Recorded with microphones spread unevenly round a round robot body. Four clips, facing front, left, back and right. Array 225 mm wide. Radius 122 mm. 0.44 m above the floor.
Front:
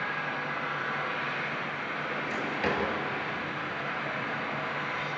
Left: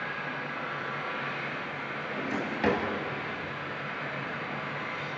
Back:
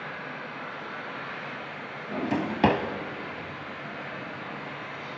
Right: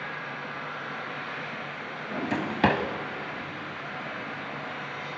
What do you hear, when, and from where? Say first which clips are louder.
0.0 s an engine running: left 1 dB, front 4 dB; 15° right, 8.5 m
2.1 s a drawer: right 4 dB, back 8 dB; 145° right, 1.4 m